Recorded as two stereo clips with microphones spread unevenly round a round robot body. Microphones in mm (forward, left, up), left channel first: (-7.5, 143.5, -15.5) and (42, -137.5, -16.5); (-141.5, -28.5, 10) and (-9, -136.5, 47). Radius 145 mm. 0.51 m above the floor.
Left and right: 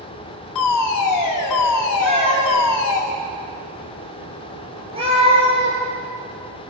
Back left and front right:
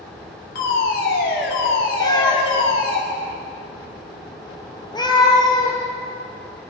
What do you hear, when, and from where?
0.6 s a fire alarm: 120° left, 6 m
2.0 s a cat meowing: 150° right, 6.5 m